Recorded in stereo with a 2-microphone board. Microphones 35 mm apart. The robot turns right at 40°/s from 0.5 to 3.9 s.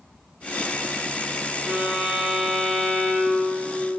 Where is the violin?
40° right, 2 m; by 3.6 s 40° left, 2 m.